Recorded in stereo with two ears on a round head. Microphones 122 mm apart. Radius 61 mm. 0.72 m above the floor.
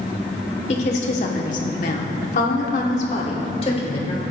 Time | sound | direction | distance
0.7 | a woman speaking | 50° left (ahead or behind) | 2 m